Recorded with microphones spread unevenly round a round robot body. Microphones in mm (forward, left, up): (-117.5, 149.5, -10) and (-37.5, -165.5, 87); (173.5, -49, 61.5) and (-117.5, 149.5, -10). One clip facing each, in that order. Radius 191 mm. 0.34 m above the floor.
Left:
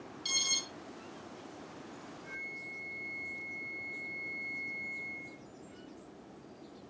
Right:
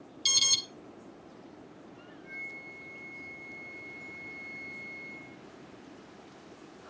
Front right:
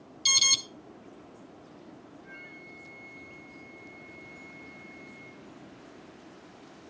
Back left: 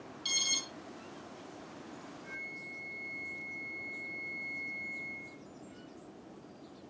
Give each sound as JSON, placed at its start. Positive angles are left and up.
{"t": 0.2, "sound": "an alarm", "azimuth_deg": -50, "distance_m": 3.0}
{"t": 2.2, "sound": "a flute", "azimuth_deg": 180, "distance_m": 6.5}